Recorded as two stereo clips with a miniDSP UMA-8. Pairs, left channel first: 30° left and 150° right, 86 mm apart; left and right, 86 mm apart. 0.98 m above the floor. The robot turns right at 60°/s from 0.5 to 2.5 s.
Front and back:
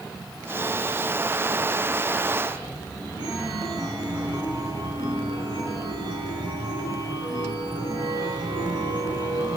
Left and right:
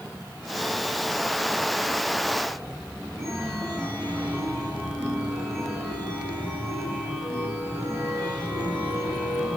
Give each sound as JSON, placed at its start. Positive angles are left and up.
{"t": 3.2, "sound": "a chime", "azimuth_deg": 170, "distance_m": 8.5}